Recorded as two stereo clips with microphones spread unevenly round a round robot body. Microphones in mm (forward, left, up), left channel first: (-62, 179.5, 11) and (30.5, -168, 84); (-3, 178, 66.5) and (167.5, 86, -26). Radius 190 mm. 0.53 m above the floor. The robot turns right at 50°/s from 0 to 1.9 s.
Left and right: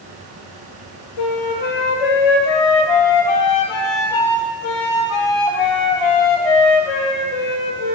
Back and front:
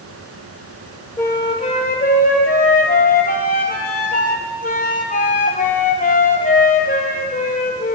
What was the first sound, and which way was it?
A flute, 75° left.